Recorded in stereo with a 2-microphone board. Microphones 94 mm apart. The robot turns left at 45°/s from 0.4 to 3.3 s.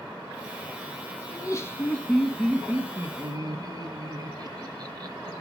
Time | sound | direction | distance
1.3 | laughter | 45° left | 1.1 m